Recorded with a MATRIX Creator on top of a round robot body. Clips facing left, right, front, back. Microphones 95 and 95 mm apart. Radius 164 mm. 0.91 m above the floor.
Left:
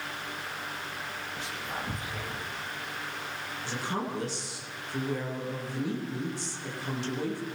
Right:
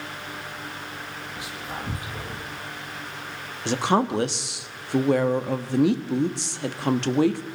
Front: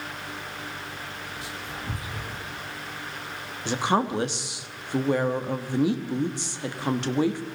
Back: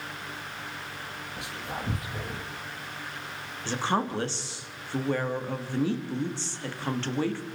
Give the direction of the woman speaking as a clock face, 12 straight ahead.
3 o'clock.